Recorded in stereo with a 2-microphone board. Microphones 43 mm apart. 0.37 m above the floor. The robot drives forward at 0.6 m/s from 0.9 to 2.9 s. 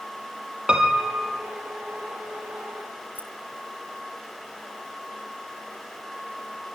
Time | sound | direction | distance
0.7 | a piano | 20° right (ahead or behind) | 3 m
3.1 | keys jangling | 45° right (ahead or behind) | 2 m